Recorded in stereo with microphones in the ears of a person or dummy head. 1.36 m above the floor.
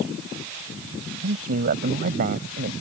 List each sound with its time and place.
1.2 s a man speaking: 50° right (ahead or behind)